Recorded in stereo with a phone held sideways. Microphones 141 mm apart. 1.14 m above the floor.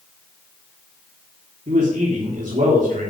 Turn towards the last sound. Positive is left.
turn(degrees=-55)  # may be behind; listen again after turning